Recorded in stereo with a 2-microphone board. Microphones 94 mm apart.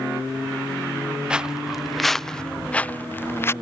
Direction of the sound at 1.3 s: 10° right (ahead or behind).